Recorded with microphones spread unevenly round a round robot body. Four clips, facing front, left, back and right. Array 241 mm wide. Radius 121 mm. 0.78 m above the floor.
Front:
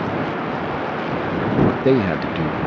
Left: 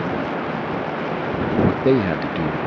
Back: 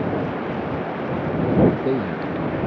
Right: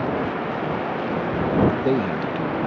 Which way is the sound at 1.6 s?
35° left.